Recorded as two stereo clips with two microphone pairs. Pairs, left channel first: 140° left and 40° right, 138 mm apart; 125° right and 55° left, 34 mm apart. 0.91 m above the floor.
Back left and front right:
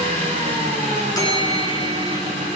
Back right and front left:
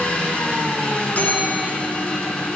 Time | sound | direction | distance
0.0 | an engine running | 85° right | 9.5 m
1.1 | a bell | 160° right | 3 m